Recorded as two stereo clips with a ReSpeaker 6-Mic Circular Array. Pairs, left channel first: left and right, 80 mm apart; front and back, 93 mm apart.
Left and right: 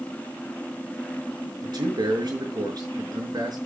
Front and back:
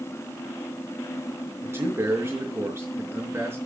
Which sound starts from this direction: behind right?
A man speaking, at 1.6 s.